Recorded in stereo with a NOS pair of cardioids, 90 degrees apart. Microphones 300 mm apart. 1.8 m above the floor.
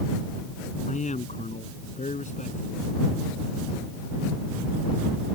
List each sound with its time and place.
0.9 s a man speaking: 25° left